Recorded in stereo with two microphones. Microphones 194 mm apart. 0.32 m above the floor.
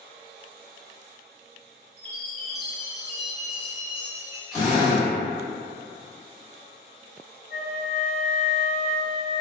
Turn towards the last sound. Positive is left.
turn(degrees=5)  # may be behind; listen again after turning